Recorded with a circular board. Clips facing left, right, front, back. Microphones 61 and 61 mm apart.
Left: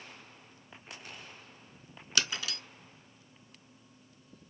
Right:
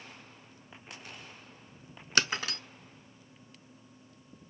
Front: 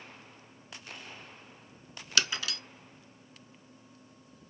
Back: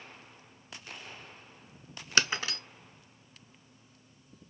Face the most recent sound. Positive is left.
turn(degrees=-130)